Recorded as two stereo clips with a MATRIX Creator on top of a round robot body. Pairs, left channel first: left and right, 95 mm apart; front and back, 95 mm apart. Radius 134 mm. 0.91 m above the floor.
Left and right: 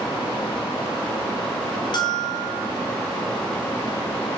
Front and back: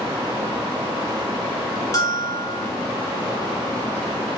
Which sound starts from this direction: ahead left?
A bell, at 1.9 s.